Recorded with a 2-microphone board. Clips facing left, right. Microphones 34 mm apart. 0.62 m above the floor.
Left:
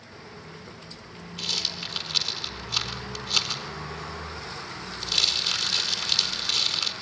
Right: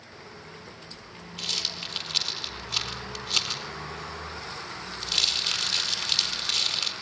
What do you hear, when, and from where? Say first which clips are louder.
1.4 s a rattle: left 1 dB; 5° right (ahead or behind), 4 m